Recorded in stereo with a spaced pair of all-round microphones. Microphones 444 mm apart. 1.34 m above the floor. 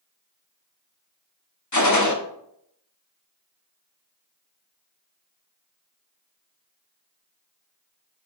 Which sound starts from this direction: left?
A gunshot, at 1.7 s.